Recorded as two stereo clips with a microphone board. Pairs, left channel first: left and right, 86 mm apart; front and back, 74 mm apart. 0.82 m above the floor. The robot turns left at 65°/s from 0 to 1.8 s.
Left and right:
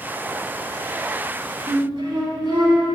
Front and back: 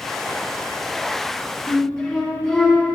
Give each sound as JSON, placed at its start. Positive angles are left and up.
{"t": 1.7, "sound": "a flute", "azimuth_deg": -75, "distance_m": 3.5}